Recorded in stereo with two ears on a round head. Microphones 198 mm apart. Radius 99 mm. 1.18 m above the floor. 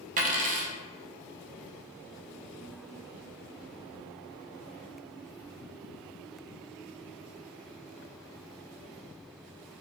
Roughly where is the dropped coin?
Right.